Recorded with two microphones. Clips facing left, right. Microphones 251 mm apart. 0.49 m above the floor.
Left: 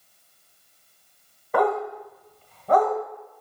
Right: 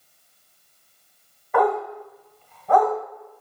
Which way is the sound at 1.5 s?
35° left (ahead or behind).